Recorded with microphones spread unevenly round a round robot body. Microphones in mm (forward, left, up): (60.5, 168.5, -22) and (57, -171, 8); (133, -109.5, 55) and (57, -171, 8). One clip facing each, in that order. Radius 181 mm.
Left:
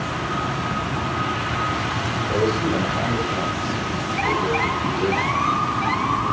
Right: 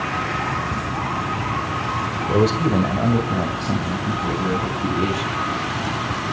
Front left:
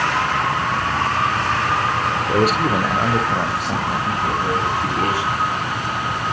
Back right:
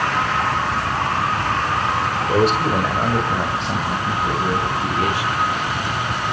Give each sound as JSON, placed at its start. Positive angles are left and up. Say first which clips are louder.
{"t": 2.3, "sound": "a man speaking", "louder": "right 3 dB, back right 1 dB", "azimuth_deg": -70, "distance_m": 1.6}